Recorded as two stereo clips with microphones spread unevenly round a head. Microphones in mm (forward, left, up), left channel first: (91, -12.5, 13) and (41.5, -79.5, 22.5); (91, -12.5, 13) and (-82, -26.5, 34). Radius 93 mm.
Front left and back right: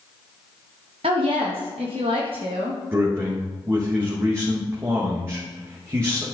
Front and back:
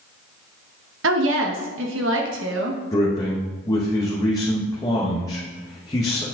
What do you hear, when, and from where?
1.0 s a woman speaking: 170° right, 1.7 m
2.9 s a man speaking: 65° right, 2 m